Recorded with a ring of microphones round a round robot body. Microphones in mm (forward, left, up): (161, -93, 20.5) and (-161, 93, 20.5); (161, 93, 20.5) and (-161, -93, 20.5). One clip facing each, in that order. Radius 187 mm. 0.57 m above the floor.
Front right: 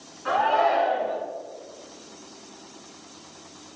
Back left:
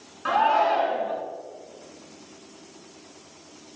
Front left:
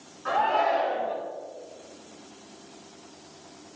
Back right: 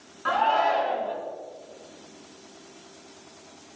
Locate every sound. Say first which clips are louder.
0.2 s a shout: front right 1 dB, even; straight behind, 7.5 m